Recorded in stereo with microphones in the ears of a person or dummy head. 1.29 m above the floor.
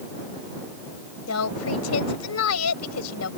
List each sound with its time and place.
1.3 s a woman speaking: 90° left